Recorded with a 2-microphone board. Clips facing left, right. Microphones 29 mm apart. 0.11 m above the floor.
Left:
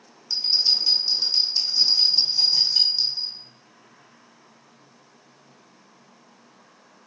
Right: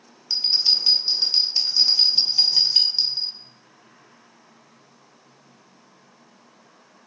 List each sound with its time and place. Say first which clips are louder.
0.3 s a bell: right 1 dB; 35° right (ahead or behind), 0.8 m